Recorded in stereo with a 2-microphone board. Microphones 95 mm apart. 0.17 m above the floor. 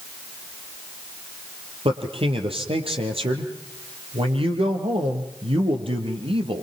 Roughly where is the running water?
I don't hear running water.